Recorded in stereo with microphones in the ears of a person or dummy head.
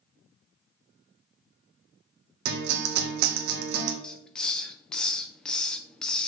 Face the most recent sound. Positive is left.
turn(degrees=0)  # may be behind; listen again after turning